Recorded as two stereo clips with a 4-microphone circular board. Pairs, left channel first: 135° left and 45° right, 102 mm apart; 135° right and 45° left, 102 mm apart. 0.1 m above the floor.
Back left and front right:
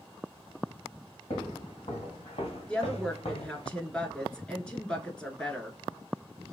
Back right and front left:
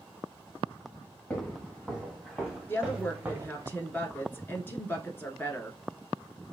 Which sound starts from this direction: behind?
A woman speaking, at 2.7 s.